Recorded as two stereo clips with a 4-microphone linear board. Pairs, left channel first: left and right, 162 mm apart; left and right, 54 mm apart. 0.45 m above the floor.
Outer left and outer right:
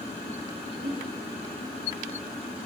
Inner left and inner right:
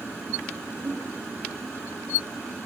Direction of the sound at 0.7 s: 60° right (ahead or behind).